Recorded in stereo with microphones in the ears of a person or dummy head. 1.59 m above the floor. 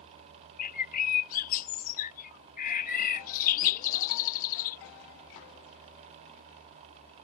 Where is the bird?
45° left (ahead or behind).